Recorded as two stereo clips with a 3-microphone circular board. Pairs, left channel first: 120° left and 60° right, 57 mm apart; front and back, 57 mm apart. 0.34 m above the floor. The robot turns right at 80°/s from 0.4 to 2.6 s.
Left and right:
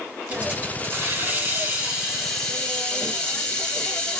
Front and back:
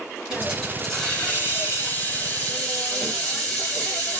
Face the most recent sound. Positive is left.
turn(degrees=65)